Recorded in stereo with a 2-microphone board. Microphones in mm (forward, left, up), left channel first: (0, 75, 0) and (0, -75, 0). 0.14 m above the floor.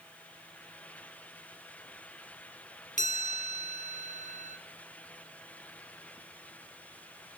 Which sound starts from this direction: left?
A chime, at 3.0 s.